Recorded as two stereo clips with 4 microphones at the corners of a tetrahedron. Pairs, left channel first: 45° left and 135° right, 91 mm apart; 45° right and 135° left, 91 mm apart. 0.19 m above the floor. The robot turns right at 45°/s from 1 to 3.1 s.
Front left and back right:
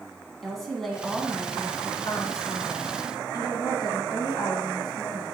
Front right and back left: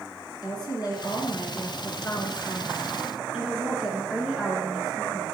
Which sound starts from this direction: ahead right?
A woman speaking, at 0.4 s.